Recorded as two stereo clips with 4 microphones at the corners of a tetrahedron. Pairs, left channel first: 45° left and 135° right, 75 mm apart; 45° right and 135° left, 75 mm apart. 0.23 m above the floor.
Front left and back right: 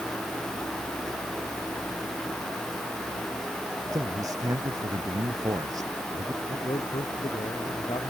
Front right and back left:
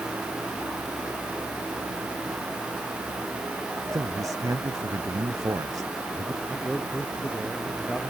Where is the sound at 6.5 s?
40° left.